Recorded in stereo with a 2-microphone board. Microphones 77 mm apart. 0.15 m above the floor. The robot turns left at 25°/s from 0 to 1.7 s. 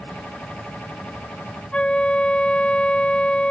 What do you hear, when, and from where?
1.7 s a flute: 15° left (ahead or behind)